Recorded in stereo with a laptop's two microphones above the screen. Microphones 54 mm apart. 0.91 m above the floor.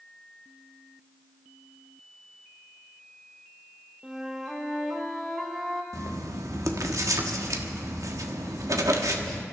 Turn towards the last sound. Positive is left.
turn(degrees=-75)  # may be behind; listen again after turning